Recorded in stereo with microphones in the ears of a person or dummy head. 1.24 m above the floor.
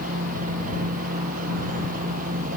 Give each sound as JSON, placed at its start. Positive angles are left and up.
{"t": 0.0, "sound": "a machine running", "side_deg": -45}